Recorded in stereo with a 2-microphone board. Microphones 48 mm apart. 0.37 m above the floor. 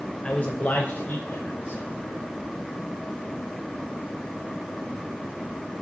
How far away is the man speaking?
About 1.3 m.